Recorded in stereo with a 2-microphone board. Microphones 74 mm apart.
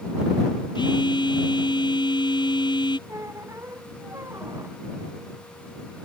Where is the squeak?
40° right (ahead or behind).